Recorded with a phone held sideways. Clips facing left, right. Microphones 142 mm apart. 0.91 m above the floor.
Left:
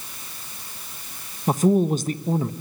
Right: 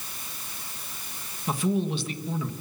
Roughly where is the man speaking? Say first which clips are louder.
Left 8 dB; left.